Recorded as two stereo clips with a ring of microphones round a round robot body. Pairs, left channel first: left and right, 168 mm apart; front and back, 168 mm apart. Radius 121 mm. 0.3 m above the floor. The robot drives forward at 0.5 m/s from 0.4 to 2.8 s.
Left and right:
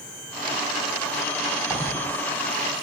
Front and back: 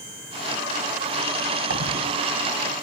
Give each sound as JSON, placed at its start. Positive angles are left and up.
{"t": 1.7, "sound": "a dropped coin", "azimuth_deg": -175, "distance_m": 1.1}